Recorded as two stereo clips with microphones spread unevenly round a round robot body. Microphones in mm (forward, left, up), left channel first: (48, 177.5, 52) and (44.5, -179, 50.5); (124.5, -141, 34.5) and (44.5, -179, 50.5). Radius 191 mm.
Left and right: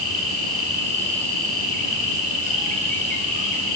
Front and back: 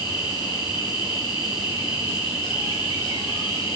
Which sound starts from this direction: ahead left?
An insect, at 0.0 s.